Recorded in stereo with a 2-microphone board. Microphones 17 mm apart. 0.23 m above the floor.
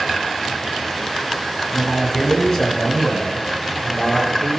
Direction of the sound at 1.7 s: 10° left (ahead or behind).